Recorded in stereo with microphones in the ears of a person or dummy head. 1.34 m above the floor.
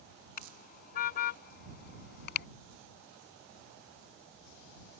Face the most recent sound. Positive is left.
turn(degrees=60)  # may be behind; listen again after turning